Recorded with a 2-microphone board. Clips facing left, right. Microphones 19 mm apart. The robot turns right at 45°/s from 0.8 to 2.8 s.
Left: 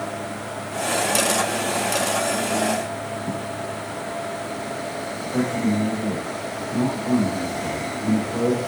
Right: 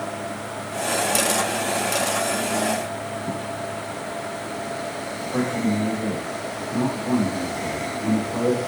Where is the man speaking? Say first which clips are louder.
Left 1 dB; 5° left (ahead or behind), 1.3 m.